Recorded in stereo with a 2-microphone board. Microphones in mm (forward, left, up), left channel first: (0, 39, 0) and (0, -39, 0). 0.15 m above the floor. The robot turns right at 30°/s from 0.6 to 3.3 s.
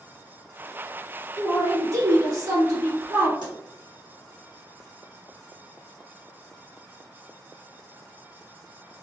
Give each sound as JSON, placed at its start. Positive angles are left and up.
{"t": 1.4, "sound": "a man speaking", "azimuth_deg": -130, "distance_m": 1.7}
{"t": 3.4, "sound": "a pop", "side_deg": -70, "distance_m": 1.4}